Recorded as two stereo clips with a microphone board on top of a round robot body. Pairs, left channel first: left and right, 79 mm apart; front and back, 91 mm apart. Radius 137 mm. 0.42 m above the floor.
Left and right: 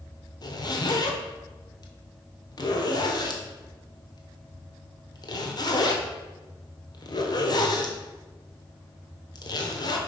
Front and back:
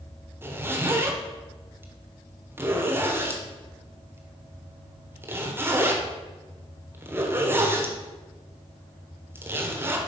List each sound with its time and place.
0.4 s a zipper: 115° left, 1.6 m